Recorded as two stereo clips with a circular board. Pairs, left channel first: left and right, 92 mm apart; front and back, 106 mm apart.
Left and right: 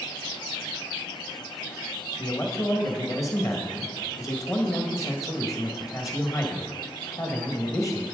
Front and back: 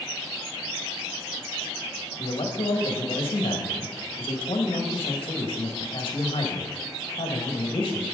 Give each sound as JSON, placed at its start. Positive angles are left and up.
{"t": 2.2, "sound": "a man speaking", "azimuth_deg": 35, "distance_m": 1.7}